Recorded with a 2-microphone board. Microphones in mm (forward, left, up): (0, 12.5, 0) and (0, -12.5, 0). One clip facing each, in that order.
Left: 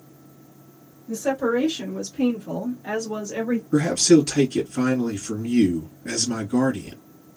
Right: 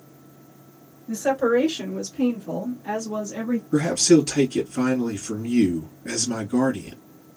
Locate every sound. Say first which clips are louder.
1.1 s a woman speaking: right 2 dB; 40° right (ahead or behind), 1.6 m; by 3.6 s 50° left (ahead or behind), 1.7 m
3.7 s a man speaking: left 1 dB; 5° left (ahead or behind), 1.9 m